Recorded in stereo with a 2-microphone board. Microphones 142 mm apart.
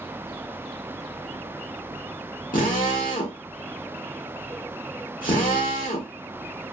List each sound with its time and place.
2.5 s a drill: 80° left, 1.4 m